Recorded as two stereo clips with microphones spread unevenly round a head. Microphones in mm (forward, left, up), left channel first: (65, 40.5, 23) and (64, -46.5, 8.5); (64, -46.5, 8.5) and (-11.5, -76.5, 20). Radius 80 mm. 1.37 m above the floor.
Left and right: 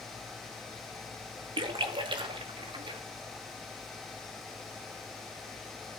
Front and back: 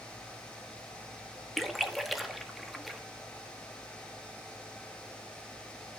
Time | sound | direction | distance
1.6 | a splash | 70° right | 1.9 m